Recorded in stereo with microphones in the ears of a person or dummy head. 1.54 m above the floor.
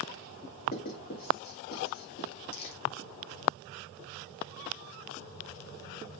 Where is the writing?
35° left (ahead or behind), 2 m.